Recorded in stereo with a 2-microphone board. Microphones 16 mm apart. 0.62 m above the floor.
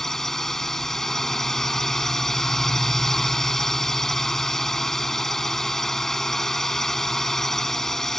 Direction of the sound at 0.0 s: 25° left (ahead or behind).